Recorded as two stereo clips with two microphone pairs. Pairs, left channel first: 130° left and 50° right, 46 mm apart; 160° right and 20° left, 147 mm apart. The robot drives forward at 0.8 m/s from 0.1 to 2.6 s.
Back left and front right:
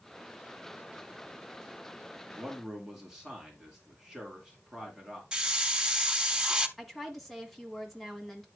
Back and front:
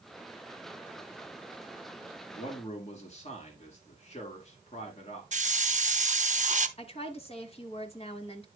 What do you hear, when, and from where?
2.4 s a man speaking: 125° right, 2.5 m; by 5.2 s 130° right, 2.5 m
5.3 s a hiss: 20° left, 0.6 m
6.8 s a woman speaking: 145° right, 1.5 m